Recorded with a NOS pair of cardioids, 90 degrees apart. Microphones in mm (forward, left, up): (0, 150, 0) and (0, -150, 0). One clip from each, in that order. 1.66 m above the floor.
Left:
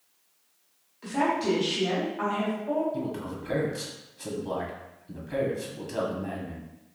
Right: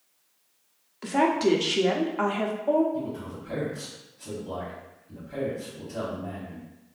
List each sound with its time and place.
1.0 s a woman speaking: 50° right, 0.8 m
2.9 s a man speaking: 65° left, 1.2 m